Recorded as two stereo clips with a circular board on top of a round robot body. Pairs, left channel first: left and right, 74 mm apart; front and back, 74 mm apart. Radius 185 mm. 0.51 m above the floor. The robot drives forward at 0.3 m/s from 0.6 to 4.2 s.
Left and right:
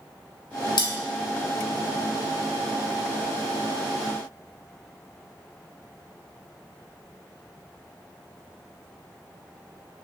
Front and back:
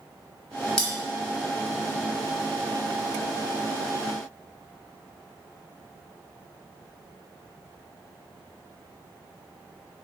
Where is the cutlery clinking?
80° left, 0.9 m; by 0.9 s 85° left, 0.9 m.